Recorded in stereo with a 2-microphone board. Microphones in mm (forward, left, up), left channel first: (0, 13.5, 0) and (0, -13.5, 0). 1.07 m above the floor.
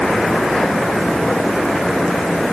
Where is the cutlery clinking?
No cutlery clinking in this recording.